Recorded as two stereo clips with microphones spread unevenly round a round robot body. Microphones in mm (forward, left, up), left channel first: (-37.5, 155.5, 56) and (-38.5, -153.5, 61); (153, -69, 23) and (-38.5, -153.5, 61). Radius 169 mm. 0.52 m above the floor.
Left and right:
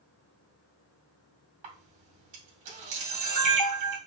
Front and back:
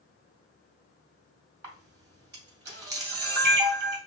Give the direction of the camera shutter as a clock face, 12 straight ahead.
4 o'clock.